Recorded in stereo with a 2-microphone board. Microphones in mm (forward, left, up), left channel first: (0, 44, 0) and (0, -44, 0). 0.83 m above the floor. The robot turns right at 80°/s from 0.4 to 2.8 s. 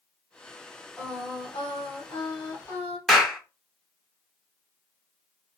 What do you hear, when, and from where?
1.0 s singing: 10° left, 1.4 m; by 3.0 s 155° left, 1.4 m
3.1 s a clap: centre (ahead or behind), 0.7 m